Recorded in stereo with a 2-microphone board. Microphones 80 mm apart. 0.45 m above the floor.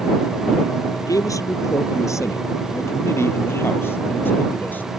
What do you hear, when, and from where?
0.9 s a man speaking: 45° left (ahead or behind); by 4.9 s 20° left (ahead or behind)